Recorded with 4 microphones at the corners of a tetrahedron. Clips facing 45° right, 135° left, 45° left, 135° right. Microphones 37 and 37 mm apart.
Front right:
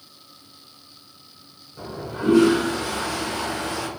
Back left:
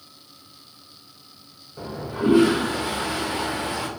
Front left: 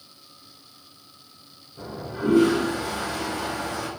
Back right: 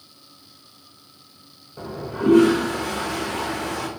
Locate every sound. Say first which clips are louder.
1.8 s a toilet flushing: back left 3 dB, back right 4 dB; 155° right, 0.5 m